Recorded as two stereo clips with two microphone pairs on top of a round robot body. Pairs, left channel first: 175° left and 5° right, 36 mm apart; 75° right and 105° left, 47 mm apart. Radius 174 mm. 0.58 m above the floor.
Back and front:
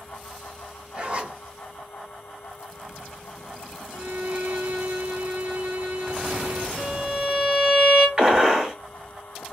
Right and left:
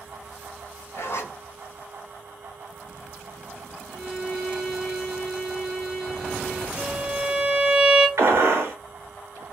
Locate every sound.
0.9 s a zipper: 60° right, 1.3 m
3.9 s a violin: 30° left, 1.9 m
6.8 s a violin: 65° left, 1.5 m
8.2 s a gunshot: 70° left, 1.1 m